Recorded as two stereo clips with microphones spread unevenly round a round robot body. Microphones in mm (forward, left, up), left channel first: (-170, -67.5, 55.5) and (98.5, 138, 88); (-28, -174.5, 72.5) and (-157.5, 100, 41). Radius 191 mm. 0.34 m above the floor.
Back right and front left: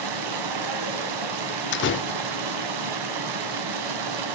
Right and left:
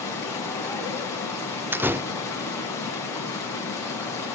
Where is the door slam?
170° right, 0.6 m.